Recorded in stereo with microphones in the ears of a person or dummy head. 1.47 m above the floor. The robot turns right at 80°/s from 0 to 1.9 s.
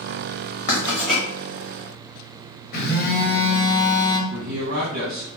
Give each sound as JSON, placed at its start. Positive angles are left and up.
{"t": 0.7, "sound": "writing", "side_deg": 40, "distance_m": 0.9}
{"t": 2.7, "sound": "a phone buzzing", "side_deg": 55, "distance_m": 1.1}
{"t": 4.3, "sound": "a man speaking", "side_deg": -50, "distance_m": 1.3}